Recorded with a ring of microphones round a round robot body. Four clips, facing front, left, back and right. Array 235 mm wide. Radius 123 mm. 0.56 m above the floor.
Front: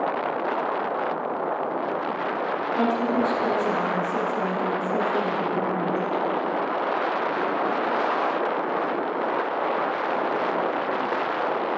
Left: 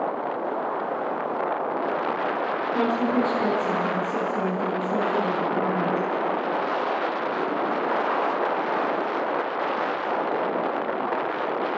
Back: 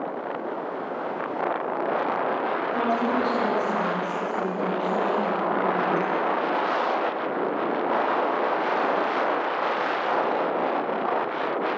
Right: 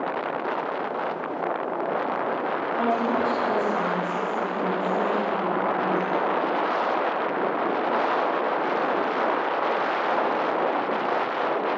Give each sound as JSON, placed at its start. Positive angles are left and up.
{"t": 2.7, "sound": "a woman speaking", "azimuth_deg": 100, "distance_m": 10.0}